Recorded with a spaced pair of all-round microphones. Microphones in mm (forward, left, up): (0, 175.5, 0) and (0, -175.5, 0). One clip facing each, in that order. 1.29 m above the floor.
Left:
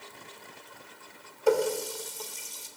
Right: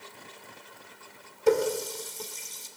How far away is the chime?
No chime in this recording.